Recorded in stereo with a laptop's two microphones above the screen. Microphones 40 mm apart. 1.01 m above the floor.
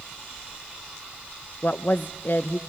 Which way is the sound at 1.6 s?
50° left (ahead or behind).